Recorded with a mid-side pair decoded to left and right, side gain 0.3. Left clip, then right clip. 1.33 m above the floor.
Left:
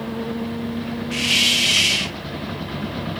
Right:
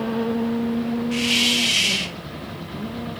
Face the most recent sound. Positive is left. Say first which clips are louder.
# left 3 dB
turn(degrees=20)